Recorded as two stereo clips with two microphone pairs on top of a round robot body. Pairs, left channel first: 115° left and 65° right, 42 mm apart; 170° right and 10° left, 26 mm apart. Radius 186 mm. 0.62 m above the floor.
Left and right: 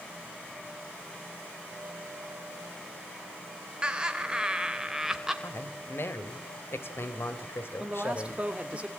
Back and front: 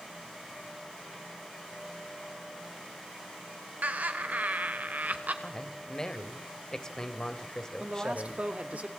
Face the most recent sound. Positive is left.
turn(degrees=-5)